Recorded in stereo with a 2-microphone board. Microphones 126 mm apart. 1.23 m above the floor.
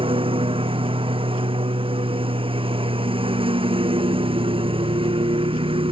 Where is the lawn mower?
45° right (ahead or behind).